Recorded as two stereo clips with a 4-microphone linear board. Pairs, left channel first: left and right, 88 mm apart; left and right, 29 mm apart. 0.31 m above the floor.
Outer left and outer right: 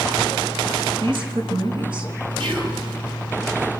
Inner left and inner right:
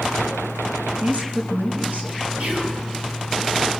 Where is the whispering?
60° right (ahead or behind), 6.5 m.